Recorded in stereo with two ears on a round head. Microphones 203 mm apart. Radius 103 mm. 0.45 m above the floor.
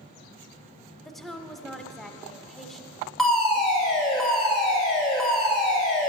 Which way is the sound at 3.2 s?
Centre (ahead or behind).